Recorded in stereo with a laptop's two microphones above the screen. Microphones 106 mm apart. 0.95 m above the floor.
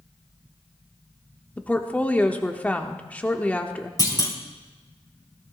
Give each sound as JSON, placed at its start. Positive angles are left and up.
{"t": 1.6, "sound": "a woman speaking", "side_deg": 15, "distance_m": 1.1}
{"t": 4.0, "sound": "a clunk", "side_deg": 35, "distance_m": 2.0}